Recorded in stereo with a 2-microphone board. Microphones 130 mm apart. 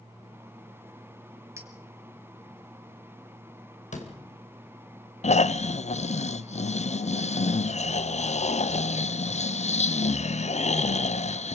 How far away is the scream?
I don't hear a scream.